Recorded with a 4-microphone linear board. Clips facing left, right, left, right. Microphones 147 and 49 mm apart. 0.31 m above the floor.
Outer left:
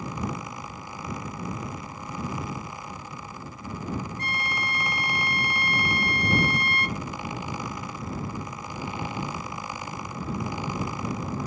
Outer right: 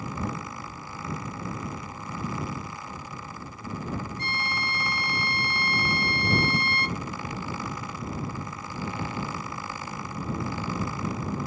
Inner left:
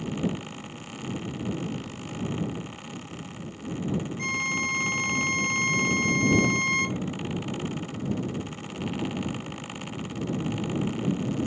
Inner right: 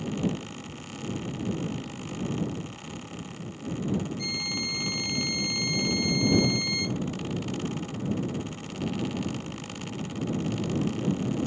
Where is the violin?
50° left (ahead or behind).